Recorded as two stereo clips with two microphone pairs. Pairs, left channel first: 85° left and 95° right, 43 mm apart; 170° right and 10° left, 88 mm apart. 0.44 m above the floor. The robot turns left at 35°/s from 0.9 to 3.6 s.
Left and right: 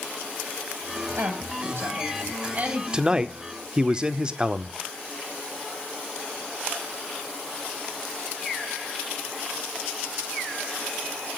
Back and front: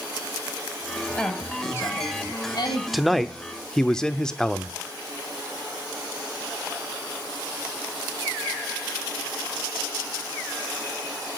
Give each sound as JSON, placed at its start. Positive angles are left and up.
{"t": 1.1, "sound": "a woman speaking", "azimuth_deg": -90, "distance_m": 3.0}
{"t": 2.9, "sound": "a man speaking", "azimuth_deg": -85, "distance_m": 0.8}